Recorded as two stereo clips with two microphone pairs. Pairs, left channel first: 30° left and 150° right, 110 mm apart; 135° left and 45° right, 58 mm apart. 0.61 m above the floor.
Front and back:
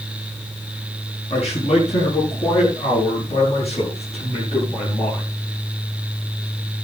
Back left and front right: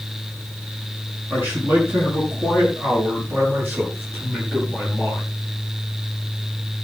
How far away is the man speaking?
About 5.5 m.